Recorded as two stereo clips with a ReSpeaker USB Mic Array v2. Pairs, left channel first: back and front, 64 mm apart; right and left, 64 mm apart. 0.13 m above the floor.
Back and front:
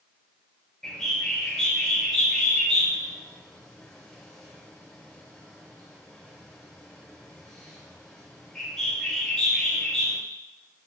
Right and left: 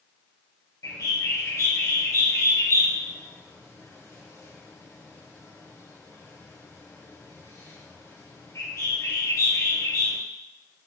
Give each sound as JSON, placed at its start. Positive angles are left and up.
{"t": 0.8, "sound": "a bird", "azimuth_deg": -100, "distance_m": 3.0}